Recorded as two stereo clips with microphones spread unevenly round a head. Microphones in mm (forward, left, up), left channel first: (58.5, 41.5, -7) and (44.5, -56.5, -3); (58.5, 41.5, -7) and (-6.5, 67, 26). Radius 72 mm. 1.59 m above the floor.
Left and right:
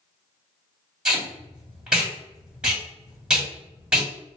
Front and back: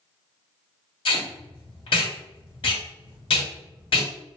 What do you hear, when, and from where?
1.1 s tape being pulled: 20° right, 1.7 m